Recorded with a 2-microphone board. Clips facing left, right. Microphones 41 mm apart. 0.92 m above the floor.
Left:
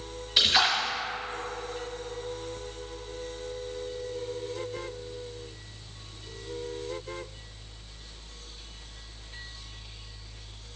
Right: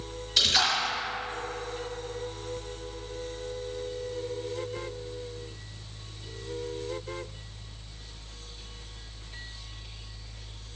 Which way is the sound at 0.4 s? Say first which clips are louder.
Left 2 dB; 20° left (ahead or behind).